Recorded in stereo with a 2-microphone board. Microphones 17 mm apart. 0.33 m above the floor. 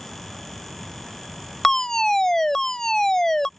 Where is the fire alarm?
25° left (ahead or behind).